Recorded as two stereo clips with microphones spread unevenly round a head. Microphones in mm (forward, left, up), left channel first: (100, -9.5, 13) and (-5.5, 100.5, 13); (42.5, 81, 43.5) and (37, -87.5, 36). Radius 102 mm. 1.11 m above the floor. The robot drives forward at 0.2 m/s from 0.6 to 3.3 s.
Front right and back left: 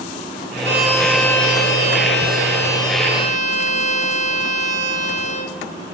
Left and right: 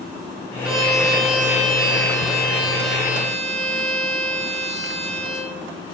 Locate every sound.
0.6 s a violin: straight behind, 2.0 m